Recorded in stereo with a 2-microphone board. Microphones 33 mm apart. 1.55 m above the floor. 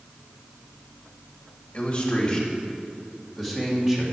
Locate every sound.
1.7 s a man speaking: 35° left (ahead or behind), 2.5 m; by 4.0 s 10° right (ahead or behind), 2.5 m